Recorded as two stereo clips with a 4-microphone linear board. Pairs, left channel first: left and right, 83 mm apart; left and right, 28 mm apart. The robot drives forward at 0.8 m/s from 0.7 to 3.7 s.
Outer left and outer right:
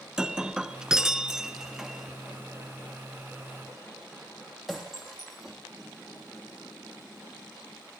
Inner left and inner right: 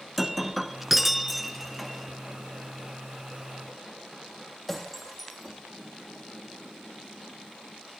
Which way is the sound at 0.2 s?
5° right (ahead or behind).